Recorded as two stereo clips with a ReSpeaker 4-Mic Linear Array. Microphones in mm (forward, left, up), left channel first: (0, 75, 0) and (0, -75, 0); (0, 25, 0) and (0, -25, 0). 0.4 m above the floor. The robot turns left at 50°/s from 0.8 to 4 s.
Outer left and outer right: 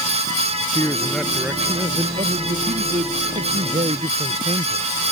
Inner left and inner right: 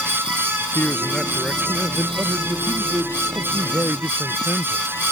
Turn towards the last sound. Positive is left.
turn(degrees=-135)